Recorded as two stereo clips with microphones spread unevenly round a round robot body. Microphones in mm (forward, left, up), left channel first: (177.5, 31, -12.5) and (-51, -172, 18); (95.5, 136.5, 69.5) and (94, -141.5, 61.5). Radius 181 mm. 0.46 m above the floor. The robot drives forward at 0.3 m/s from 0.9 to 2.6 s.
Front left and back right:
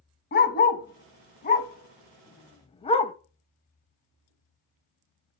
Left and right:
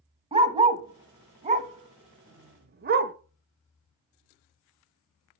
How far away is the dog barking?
About 1.3 m.